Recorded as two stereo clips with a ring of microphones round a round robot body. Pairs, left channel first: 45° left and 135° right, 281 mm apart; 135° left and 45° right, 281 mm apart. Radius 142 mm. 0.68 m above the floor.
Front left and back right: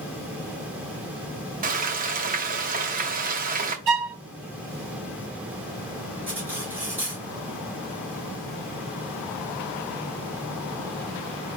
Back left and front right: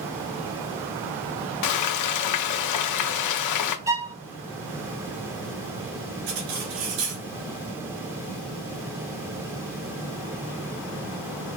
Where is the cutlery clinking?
50° right, 3 m.